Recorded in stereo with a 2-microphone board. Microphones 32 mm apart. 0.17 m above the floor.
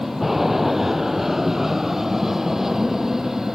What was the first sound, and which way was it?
An aircraft, 10° right (ahead or behind).